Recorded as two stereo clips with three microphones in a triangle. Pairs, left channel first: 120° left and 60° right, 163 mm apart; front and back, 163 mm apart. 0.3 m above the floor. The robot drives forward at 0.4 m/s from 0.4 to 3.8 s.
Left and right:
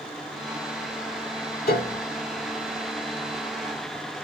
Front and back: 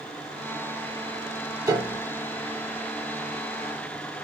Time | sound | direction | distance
1.7 | a piano | 115° left | 0.9 m